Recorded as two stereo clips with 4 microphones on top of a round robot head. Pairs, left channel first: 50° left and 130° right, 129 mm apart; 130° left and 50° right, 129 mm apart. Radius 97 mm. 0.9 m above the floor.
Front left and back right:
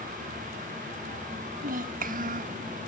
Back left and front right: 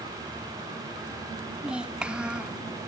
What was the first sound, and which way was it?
A child speaking, 130° right.